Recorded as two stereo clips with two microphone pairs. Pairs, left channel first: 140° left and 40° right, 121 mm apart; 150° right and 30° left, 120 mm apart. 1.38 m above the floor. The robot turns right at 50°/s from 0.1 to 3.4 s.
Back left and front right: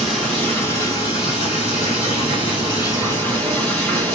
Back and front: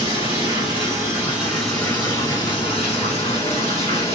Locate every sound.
0.0 s running water: 50° left, 2.0 m; by 4.2 s 145° right, 2.0 m